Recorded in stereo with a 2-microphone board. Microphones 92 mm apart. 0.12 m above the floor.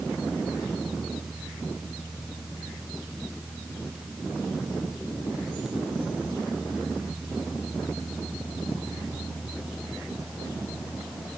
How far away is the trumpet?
I don't hear a trumpet.